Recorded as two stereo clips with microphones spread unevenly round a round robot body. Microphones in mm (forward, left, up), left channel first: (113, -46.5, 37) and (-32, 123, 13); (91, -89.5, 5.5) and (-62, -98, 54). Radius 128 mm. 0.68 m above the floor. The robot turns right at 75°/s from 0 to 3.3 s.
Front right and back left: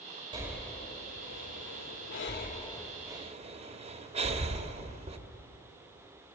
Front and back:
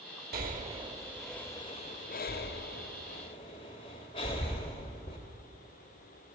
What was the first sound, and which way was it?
Breathing, 155° right.